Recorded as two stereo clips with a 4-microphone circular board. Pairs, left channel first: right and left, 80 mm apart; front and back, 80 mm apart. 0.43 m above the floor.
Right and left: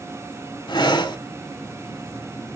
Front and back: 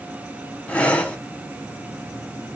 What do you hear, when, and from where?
0.7 s breathing: 75° right, 0.7 m